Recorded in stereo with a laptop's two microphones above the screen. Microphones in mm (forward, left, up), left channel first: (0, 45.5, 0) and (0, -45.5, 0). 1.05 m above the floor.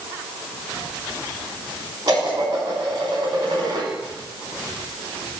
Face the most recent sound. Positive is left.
turn(degrees=-50)  # may be behind; listen again after turning